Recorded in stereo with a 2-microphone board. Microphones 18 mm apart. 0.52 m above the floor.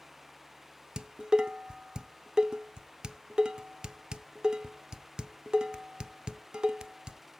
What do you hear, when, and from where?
1.0 s dishes clattering: 45° right (ahead or behind), 0.5 m